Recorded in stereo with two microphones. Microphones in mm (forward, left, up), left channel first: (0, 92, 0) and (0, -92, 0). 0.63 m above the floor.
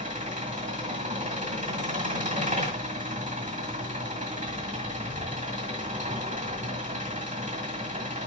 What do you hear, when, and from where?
0.0 s an engine running: 45° right (ahead or behind), 1.9 m